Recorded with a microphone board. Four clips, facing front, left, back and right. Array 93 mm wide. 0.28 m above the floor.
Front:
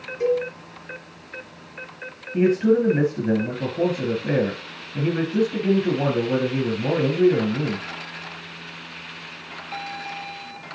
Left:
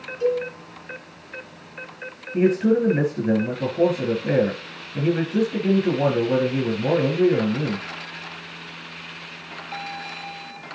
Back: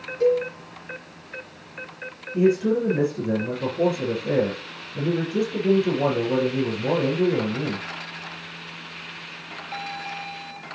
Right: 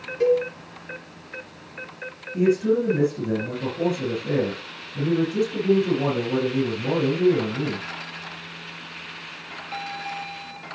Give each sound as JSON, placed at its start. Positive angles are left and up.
{"t": 0.2, "sound": "a cowbell", "azimuth_deg": -75, "distance_m": 3.5}
{"t": 2.3, "sound": "a man speaking", "azimuth_deg": 50, "distance_m": 4.0}